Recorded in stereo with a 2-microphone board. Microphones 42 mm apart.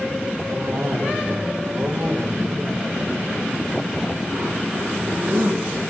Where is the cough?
70° right (ahead or behind), 9.5 m.